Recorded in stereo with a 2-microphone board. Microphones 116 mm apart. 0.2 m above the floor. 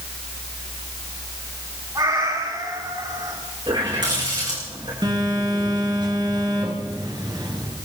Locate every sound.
1.9 s a cat meowing: 35° right (ahead or behind), 7 m
3.7 s a running tap: 40° right (ahead or behind), 8.5 m
5.0 s a phone buzzing: 40° right (ahead or behind), 3 m